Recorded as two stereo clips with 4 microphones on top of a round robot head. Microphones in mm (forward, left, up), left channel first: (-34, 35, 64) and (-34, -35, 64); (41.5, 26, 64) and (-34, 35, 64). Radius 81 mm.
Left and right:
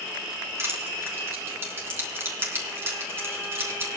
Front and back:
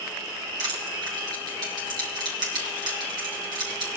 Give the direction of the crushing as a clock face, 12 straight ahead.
5 o'clock.